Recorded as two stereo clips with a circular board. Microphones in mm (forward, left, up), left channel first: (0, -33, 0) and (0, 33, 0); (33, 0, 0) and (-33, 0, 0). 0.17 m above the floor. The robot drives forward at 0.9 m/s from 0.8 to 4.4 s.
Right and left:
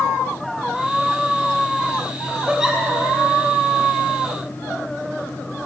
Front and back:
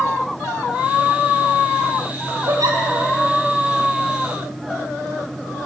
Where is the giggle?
170° left, 3.5 m.